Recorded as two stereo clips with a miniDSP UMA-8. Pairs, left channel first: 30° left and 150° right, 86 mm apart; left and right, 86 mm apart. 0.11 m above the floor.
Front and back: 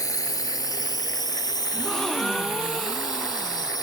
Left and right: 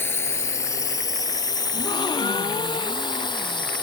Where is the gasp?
115° left.